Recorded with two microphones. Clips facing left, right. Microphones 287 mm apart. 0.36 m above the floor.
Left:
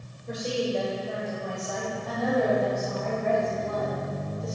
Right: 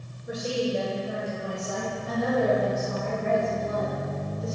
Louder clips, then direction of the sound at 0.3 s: Right 1 dB; 10° right (ahead or behind).